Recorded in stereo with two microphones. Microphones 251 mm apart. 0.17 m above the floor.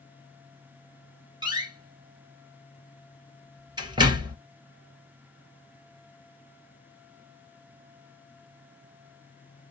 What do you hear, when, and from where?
1.4 s a door slam: 20° right (ahead or behind), 1.6 m